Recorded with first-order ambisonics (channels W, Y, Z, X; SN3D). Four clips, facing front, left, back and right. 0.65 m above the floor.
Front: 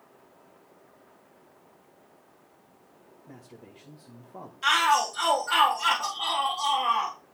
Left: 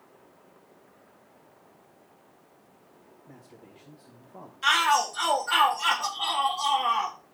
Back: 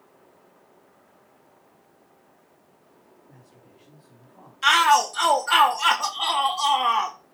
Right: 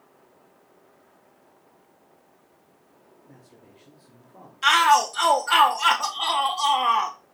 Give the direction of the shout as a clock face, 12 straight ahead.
5 o'clock.